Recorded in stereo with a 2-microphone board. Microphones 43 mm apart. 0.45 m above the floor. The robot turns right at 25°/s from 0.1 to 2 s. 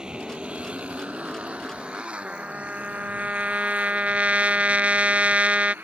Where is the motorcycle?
20° right (ahead or behind); by 5.8 s 50° right (ahead or behind).